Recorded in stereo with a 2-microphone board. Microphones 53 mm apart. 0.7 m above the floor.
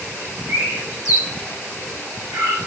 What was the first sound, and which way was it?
A bird, 60° right (ahead or behind).